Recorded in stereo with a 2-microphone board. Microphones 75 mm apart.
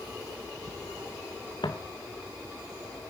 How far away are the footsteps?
About 1.8 m.